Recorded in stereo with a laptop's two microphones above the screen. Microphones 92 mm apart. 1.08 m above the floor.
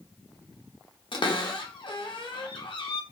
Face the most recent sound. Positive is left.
turn(degrees=65)  # may be behind; listen again after turning